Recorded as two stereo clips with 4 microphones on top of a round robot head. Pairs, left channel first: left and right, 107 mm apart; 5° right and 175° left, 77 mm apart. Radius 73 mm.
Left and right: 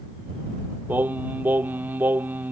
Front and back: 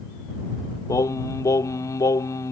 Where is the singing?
25° right.